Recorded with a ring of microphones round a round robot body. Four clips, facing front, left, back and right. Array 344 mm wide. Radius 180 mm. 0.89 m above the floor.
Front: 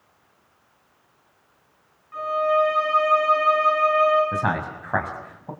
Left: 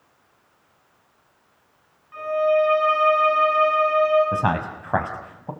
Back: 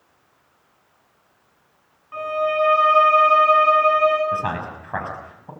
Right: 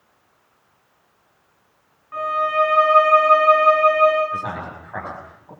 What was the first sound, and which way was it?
A violin, 130° right.